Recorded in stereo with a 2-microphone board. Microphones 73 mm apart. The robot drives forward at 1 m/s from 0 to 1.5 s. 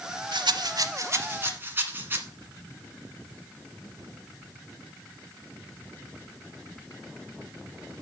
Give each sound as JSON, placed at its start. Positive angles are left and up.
{"t": 0.3, "sound": "a rattle", "side_deg": -80, "distance_m": 0.7}